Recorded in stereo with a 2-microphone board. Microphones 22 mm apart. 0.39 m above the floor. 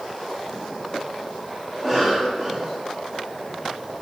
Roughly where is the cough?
Centre.